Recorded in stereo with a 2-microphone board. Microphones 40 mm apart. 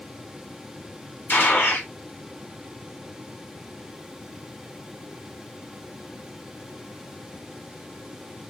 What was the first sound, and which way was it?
A gunshot, 60° left (ahead or behind).